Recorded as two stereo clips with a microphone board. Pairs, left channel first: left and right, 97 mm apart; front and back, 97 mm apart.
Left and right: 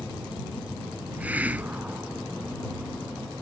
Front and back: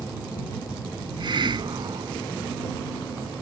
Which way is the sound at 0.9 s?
160° right.